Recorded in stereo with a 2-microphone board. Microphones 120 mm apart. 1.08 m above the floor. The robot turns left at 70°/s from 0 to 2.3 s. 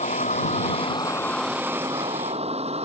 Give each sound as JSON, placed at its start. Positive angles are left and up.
{"t": 0.0, "sound": "a vehicle", "side_deg": 75}